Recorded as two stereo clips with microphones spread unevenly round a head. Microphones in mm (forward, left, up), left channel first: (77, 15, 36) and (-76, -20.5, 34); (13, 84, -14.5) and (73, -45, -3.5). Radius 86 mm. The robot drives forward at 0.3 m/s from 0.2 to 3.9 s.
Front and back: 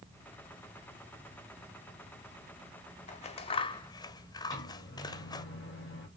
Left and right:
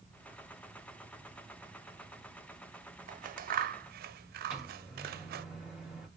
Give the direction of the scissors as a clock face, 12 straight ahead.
1 o'clock.